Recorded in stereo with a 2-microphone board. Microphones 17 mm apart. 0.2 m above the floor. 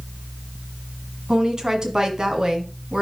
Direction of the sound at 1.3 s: 45° right (ahead or behind).